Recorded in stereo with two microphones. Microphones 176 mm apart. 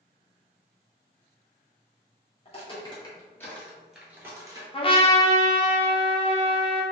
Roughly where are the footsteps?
Left.